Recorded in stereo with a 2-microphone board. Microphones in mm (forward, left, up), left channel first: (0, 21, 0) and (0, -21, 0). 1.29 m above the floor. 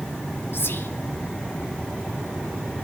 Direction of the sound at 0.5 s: 70° left (ahead or behind).